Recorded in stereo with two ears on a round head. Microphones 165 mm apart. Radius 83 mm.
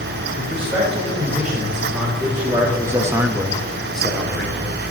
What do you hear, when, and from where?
0.3 s a man speaking: 10° right (ahead or behind), 4 m; by 4.6 s 5° left (ahead or behind), 2 m